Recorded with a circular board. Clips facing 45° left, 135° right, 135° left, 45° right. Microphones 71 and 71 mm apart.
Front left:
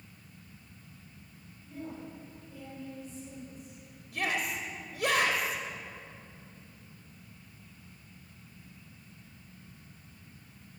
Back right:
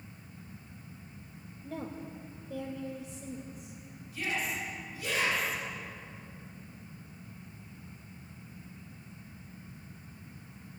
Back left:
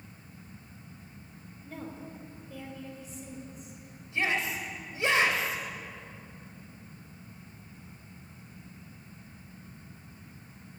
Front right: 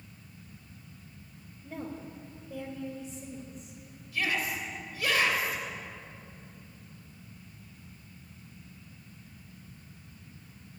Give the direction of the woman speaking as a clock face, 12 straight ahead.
4 o'clock.